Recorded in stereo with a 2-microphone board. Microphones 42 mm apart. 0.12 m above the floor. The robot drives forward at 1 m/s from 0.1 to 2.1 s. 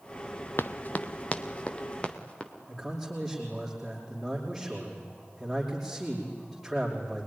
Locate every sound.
0.6 s running footsteps: 60° left (ahead or behind), 0.6 m; by 2.5 s 25° left (ahead or behind), 3 m
2.7 s a man speaking: 5° right (ahead or behind), 5 m